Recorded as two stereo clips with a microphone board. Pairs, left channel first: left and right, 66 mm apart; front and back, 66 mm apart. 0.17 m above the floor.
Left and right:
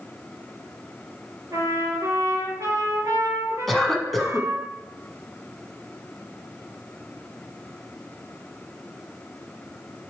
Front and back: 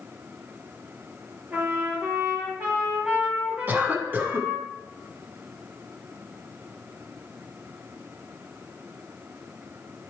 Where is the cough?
175° left, 1.2 m.